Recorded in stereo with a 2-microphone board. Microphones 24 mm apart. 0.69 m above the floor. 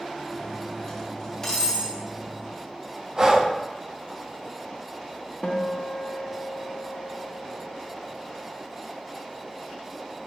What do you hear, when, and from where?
0.3 s cutlery clinking: 20° left (ahead or behind), 2.5 m
3.2 s breathing: 30° right (ahead or behind), 0.8 m
5.4 s a guitar: 35° left (ahead or behind), 1.0 m